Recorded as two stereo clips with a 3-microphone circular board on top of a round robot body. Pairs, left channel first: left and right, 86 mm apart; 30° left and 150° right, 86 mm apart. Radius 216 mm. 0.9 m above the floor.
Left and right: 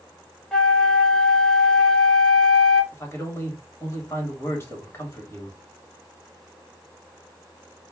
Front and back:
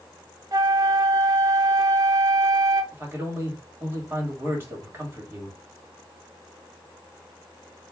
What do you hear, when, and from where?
0.5 s a flute: 170° left, 0.8 m
2.9 s a man speaking: 145° left, 1.4 m